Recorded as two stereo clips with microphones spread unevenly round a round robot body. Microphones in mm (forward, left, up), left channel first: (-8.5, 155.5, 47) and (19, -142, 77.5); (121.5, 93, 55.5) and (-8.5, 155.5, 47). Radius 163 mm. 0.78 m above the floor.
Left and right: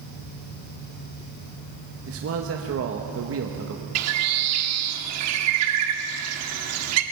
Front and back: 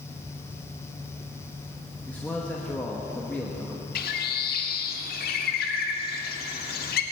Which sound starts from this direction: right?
A man speaking, at 2.1 s.